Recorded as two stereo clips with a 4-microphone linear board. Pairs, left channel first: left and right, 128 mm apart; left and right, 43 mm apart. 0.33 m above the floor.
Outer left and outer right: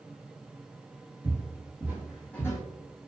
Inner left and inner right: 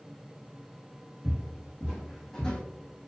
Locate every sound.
1.2 s footsteps: 30° right (ahead or behind), 1.5 m; by 2.6 s 30° left (ahead or behind), 0.6 m